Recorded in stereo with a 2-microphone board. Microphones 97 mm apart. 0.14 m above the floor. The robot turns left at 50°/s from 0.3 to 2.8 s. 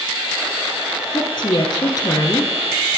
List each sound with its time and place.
1.1 s a woman speaking: 100° left, 2.5 m; by 2.5 s 30° left, 2.5 m